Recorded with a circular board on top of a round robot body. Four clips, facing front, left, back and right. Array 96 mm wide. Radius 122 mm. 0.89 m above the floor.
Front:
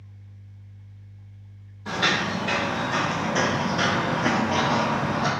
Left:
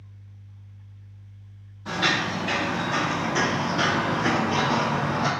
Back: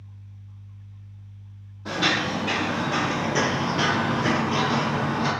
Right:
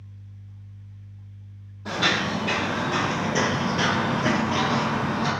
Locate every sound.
1.9 s footsteps: 135° right, 1.5 m; by 5.3 s 45° left, 1.0 m